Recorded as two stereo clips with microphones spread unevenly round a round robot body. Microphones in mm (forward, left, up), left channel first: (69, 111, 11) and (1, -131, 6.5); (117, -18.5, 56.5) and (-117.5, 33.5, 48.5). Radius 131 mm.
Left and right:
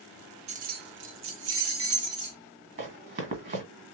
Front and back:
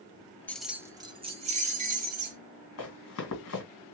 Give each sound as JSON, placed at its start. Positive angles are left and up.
{"t": 0.5, "sound": "keys jangling", "azimuth_deg": -90, "distance_m": 0.5}
{"t": 2.8, "sound": "running footsteps", "azimuth_deg": -55, "distance_m": 1.9}